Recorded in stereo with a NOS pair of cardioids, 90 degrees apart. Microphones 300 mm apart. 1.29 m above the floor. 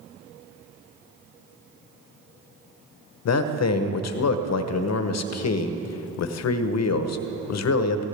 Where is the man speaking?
60° left, 1.0 m.